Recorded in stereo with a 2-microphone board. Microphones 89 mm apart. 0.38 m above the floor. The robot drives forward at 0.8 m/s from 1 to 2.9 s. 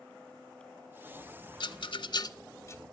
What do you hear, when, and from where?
1.6 s a rattle: 60° left (ahead or behind), 0.5 m; by 2.8 s 30° left (ahead or behind), 0.9 m